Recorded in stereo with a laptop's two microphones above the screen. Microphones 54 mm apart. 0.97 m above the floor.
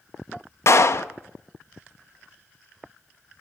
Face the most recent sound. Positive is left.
turn(degrees=55)  # may be behind; listen again after turning